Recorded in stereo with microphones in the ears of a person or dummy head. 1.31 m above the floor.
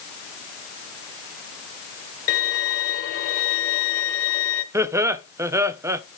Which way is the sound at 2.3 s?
45° left (ahead or behind).